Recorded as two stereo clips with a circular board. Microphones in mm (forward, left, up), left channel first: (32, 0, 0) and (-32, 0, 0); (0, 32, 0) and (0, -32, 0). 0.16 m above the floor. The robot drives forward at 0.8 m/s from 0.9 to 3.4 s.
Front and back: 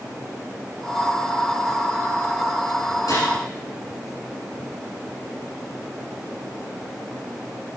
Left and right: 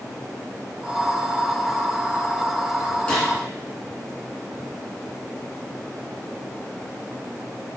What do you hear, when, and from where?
3.1 s a gunshot: 10° left, 4 m